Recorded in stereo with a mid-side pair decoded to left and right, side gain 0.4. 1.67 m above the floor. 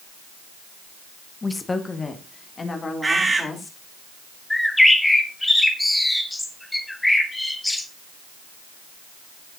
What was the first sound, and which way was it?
A woman speaking, 25° left.